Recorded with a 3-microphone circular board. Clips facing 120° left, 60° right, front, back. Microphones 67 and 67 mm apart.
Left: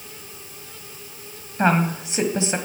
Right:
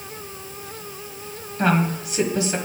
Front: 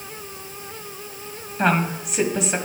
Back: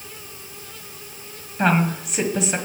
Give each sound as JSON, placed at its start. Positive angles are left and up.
{"t": 1.6, "sound": "a woman speaking", "azimuth_deg": 85, "distance_m": 1.4}